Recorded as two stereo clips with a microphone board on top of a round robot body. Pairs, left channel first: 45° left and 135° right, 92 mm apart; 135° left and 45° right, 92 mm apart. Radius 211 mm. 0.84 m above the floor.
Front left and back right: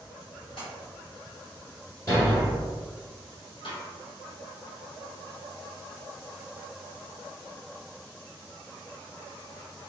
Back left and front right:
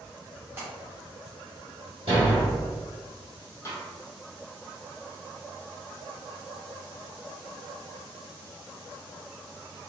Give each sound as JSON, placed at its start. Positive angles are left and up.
{"t": 0.6, "sound": "a splash", "azimuth_deg": 25, "distance_m": 1.2}
{"t": 2.1, "sound": "a thud", "azimuth_deg": -15, "distance_m": 0.8}
{"t": 3.6, "sound": "a snare drum", "azimuth_deg": 75, "distance_m": 1.2}